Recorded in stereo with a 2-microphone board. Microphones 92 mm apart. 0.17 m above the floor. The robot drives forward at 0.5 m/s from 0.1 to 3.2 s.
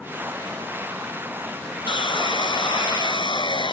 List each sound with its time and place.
1.9 s sawing: 60° left (ahead or behind)